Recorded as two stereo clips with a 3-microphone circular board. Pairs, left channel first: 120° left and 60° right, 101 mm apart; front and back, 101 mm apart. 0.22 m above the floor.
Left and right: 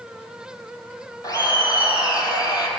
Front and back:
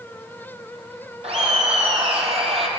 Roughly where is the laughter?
Behind.